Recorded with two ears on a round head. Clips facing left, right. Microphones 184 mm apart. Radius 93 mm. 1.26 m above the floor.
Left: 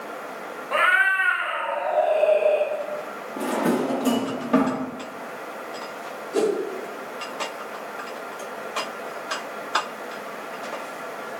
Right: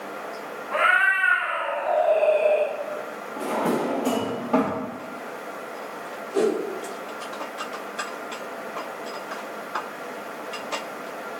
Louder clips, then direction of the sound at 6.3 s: Even; 30° left (ahead or behind).